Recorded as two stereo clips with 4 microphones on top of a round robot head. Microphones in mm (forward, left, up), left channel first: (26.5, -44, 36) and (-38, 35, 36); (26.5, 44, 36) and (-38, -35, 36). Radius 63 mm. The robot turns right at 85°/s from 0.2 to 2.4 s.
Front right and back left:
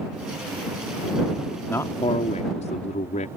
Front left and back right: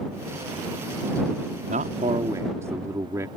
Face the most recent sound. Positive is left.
turn(degrees=-65)